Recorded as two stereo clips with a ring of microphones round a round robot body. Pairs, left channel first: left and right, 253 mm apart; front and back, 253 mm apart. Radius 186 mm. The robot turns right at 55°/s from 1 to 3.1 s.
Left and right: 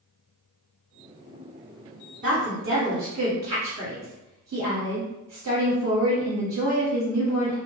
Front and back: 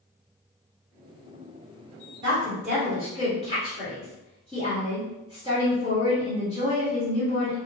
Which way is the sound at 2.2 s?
155° right.